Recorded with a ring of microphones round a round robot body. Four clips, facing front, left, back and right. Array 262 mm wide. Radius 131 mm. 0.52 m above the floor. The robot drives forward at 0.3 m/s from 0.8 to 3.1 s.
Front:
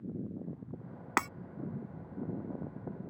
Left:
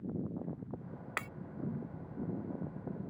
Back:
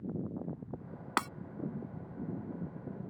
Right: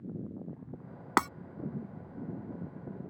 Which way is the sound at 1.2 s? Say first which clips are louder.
Right 15 dB, front 1 dB; 85° right.